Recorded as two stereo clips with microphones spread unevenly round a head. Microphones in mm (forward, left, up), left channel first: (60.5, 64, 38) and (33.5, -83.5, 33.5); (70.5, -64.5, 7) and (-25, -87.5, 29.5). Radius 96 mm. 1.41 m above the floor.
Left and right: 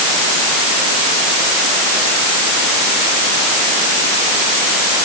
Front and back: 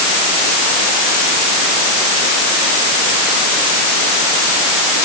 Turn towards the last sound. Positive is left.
No sound to turn to.